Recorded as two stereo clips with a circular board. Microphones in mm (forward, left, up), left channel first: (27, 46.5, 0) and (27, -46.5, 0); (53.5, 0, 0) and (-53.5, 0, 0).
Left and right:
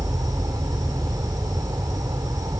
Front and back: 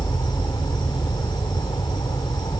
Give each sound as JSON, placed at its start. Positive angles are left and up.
{"t": 0.0, "sound": "an insect", "azimuth_deg": -45}